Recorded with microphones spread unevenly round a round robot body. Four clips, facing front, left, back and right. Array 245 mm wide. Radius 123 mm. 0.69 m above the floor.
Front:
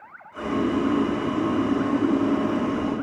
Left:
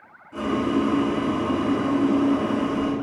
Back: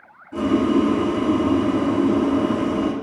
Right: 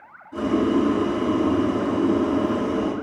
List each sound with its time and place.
0.3 s boiling: 170° right, 5 m